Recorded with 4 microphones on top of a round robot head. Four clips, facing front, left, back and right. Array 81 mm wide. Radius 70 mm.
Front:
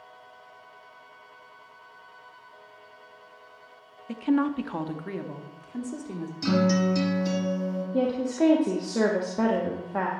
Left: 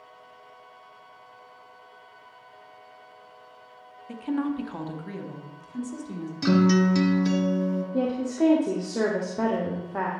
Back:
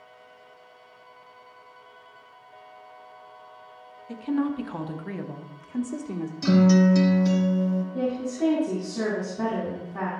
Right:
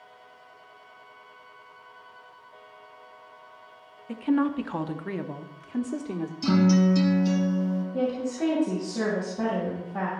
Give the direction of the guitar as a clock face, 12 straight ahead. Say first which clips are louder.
Left 1 dB, back 5 dB; 9 o'clock.